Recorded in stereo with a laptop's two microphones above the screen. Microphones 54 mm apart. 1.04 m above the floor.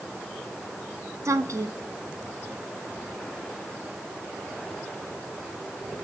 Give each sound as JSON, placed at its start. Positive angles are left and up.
{"t": 1.2, "sound": "a woman speaking", "side_deg": -85, "distance_m": 1.0}